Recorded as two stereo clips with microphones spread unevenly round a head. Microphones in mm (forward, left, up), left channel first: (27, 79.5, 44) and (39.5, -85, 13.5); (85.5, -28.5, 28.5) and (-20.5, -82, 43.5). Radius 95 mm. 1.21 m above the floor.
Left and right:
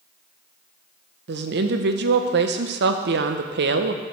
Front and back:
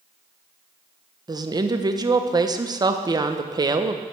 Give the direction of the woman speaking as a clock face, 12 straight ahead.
3 o'clock.